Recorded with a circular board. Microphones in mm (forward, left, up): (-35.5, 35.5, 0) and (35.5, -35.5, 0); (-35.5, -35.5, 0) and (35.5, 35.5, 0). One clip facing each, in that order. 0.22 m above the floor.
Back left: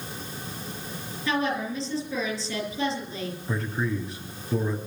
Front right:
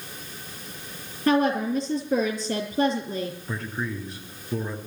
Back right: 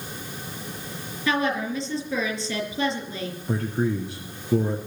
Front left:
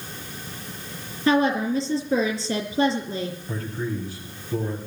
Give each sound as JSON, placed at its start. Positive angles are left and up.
{"t": 1.3, "sound": "a woman speaking", "azimuth_deg": -10, "distance_m": 4.5}
{"t": 3.5, "sound": "a man speaking", "azimuth_deg": -135, "distance_m": 3.0}